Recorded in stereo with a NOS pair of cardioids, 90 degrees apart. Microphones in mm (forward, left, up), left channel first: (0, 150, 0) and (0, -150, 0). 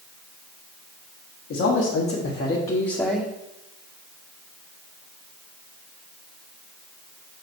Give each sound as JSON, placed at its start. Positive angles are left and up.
{"t": 1.5, "sound": "a man speaking", "azimuth_deg": 60, "distance_m": 2.0}